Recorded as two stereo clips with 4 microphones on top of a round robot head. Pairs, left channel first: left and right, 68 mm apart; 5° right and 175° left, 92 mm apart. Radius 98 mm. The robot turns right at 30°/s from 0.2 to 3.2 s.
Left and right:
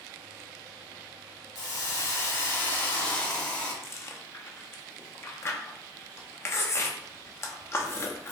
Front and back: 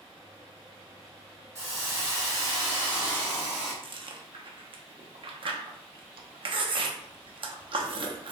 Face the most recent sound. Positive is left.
turn(degrees=145)